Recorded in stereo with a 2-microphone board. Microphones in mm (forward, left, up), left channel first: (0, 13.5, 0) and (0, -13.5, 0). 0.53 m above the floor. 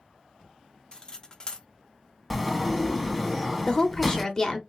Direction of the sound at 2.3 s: Centre (ahead or behind).